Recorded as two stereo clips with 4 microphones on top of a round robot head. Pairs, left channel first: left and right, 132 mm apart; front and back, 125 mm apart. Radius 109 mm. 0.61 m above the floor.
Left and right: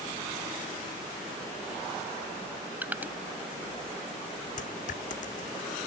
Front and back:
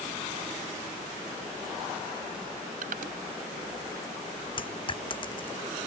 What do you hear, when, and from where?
2.8 s crushing: 165° right
4.6 s a dropped coin: 45° left